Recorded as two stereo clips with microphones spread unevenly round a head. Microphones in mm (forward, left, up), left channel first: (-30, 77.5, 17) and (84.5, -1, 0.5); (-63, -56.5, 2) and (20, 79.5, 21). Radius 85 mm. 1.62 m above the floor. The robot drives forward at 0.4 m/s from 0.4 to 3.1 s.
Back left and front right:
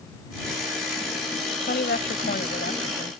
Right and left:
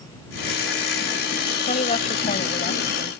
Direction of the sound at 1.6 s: 170° right.